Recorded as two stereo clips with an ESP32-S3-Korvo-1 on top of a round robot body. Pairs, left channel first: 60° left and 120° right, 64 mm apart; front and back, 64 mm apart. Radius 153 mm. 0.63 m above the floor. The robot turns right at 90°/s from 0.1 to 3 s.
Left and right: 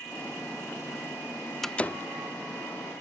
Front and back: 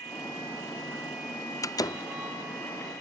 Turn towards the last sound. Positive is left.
turn(degrees=100)